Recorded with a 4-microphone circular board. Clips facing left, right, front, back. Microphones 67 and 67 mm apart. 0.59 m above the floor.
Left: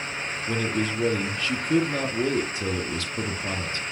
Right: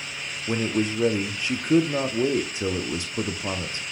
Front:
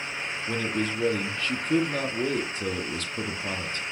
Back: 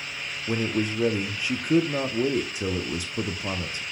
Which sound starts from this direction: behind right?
A man speaking, at 0.5 s.